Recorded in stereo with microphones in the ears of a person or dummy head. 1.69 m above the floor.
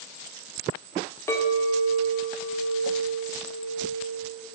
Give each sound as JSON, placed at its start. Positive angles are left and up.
{"t": 1.3, "sound": "a clink", "side_deg": 10, "distance_m": 0.6}